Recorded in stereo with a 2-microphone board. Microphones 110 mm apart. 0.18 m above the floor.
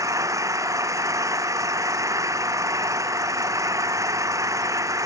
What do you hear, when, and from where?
0.0 s an engine running: 30° right (ahead or behind)